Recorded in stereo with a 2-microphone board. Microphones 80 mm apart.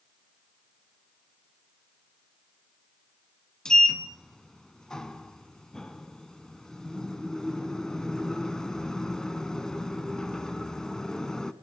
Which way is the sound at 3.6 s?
10° left (ahead or behind).